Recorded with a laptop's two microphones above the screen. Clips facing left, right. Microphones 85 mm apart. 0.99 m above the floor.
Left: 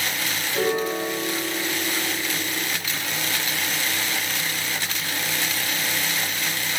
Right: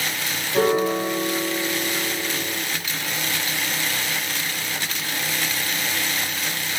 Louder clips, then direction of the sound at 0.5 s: Right 5 dB; 35° right (ahead or behind).